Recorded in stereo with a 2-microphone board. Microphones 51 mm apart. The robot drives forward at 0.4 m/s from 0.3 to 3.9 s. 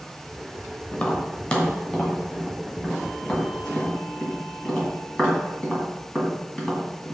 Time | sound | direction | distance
0.9 | tapping | 20° left (ahead or behind) | 1.1 m